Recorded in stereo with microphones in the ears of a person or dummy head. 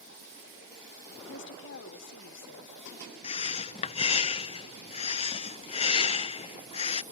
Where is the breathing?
25° left (ahead or behind).